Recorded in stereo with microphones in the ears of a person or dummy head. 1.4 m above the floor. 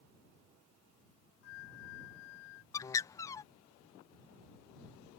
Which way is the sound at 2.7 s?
10° left (ahead or behind).